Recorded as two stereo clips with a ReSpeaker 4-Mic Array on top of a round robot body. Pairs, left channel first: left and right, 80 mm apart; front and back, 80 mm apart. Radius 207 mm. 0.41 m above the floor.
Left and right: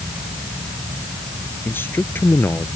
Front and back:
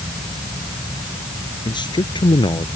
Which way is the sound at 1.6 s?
25° left.